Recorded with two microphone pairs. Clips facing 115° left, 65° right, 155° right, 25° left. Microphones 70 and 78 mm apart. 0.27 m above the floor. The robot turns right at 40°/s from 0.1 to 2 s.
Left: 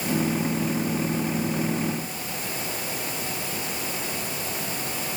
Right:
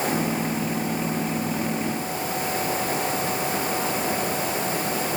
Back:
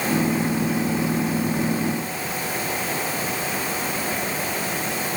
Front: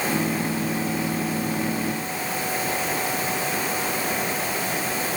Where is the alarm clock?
No alarm clock in this recording.